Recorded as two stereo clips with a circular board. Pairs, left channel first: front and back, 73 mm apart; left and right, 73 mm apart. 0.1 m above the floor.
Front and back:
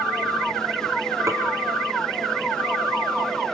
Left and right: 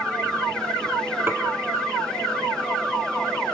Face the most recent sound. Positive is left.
turn(degrees=-145)